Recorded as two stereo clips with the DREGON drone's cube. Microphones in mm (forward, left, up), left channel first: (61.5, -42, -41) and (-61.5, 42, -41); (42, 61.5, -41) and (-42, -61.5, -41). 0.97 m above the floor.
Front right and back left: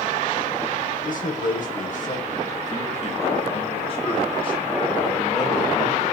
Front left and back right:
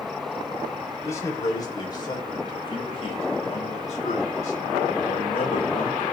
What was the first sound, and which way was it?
A man speaking, 15° right.